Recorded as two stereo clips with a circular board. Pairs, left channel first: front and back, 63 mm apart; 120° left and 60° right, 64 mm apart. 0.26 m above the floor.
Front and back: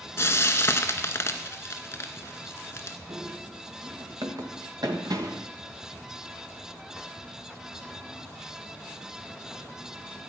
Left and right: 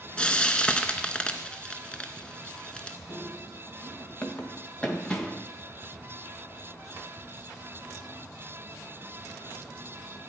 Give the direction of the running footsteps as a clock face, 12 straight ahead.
6 o'clock.